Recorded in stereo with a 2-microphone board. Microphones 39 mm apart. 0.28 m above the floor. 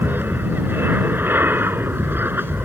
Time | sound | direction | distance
0.0 | an aircraft | 60° right (ahead or behind) | ?